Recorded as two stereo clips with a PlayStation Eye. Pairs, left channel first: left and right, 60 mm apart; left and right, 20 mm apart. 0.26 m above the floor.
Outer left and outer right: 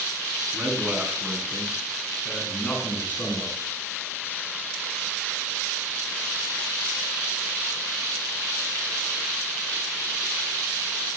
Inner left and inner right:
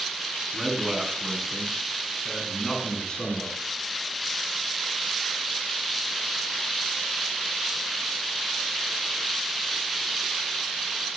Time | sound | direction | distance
0.5 | a man speaking | 30° right (ahead or behind) | 2.5 m